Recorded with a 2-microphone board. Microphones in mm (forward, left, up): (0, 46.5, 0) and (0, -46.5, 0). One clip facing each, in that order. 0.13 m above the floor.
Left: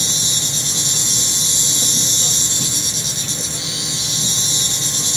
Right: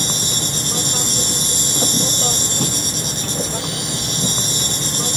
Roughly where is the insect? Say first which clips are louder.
Right 4 dB; right.